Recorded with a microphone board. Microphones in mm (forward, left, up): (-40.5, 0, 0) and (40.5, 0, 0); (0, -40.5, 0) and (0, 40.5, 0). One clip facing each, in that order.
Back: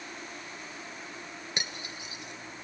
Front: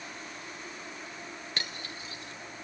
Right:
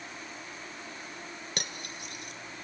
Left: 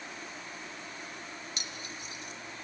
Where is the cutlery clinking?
110° right, 1.8 m.